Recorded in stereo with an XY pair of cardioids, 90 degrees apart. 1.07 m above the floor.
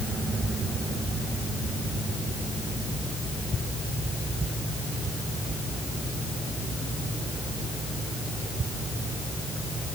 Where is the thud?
I don't hear a thud.